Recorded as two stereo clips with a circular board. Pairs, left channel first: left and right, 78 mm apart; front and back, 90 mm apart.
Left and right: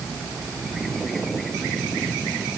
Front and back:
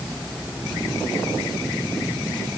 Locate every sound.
Only background noise.